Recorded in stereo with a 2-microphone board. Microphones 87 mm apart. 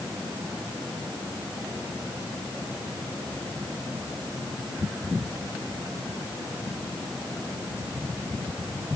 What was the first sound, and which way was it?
Only background noise.